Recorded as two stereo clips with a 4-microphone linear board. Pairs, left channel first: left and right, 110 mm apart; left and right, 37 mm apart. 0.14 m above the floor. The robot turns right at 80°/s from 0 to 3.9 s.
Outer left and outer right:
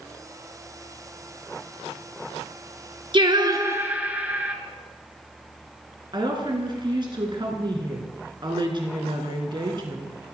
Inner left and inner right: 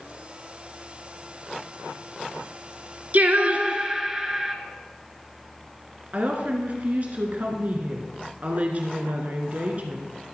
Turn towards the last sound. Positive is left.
turn(degrees=-45)  # may be behind; listen again after turning